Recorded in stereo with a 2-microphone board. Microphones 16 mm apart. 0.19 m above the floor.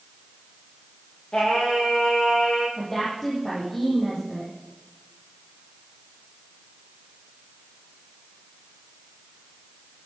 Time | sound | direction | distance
1.3 | singing | 70° left (ahead or behind) | 8 m
2.8 | a woman speaking | 30° left (ahead or behind) | 6.5 m